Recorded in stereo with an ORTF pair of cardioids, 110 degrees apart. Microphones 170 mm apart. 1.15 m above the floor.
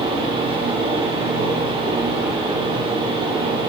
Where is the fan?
30° right, 2.5 m.